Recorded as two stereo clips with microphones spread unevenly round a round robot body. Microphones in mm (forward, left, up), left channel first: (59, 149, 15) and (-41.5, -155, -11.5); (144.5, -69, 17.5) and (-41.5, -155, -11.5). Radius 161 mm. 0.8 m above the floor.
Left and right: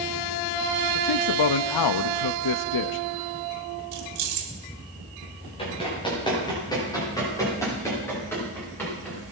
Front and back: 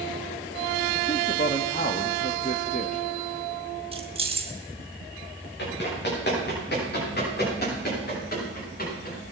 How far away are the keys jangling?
About 2 m.